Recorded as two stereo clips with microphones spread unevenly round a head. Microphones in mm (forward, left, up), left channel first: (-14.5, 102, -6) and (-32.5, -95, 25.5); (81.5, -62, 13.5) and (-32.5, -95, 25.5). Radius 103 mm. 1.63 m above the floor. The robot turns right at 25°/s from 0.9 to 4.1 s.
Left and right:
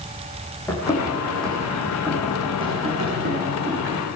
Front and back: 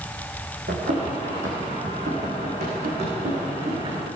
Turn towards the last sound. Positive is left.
turn(degrees=-120)